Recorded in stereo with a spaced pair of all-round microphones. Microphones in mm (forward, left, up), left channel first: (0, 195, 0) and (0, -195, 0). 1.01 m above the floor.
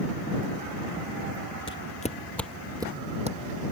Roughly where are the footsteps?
Left.